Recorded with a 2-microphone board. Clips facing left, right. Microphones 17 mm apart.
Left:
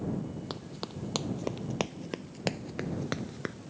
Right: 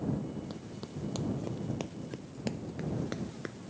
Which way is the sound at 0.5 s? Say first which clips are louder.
Left 3 dB; 45° left (ahead or behind).